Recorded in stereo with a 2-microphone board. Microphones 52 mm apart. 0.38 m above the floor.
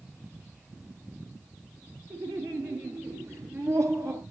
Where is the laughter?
70° right (ahead or behind), 7 m; by 4.2 s 80° right, 6 m.